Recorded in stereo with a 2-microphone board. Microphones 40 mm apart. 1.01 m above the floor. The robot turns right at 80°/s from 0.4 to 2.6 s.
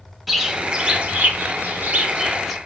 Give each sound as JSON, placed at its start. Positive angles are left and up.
{"t": 0.3, "sound": "a bird", "azimuth_deg": -175, "distance_m": 0.8}